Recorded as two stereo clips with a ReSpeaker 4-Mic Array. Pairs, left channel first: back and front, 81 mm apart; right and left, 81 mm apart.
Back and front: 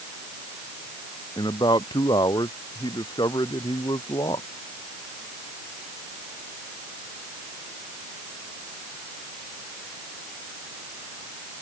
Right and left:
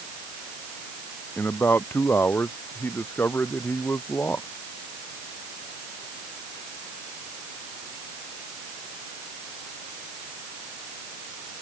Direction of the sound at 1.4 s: 155° right.